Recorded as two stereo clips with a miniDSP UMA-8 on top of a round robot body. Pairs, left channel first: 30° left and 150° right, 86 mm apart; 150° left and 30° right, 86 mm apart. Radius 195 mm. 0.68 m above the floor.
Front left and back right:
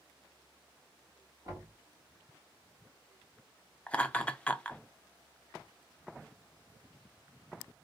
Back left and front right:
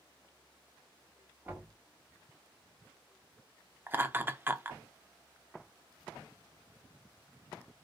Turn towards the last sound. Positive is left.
turn(degrees=-25)